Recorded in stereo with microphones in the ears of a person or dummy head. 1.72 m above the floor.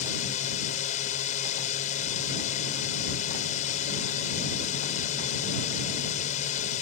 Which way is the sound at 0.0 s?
40° left (ahead or behind).